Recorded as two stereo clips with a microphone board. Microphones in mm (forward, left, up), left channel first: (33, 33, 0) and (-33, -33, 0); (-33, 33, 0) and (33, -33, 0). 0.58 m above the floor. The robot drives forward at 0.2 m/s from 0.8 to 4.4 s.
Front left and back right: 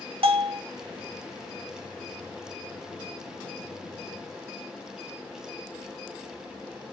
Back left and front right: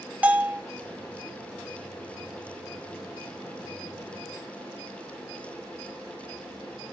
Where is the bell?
120° right, 0.6 m.